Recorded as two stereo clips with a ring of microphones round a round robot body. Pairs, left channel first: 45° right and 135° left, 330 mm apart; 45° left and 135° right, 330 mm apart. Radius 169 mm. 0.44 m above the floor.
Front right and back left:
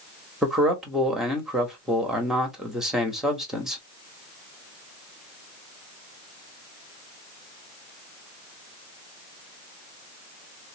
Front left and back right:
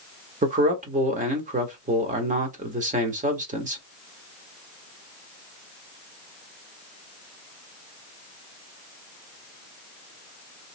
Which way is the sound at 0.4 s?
140° right.